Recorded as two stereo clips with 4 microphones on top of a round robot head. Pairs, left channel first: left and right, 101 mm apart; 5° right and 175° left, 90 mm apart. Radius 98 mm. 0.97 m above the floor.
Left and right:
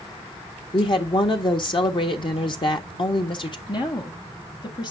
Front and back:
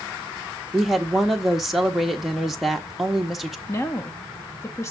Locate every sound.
0.7 s a woman speaking: 90° left, 1.1 m
3.7 s a woman speaking: 50° left, 1.3 m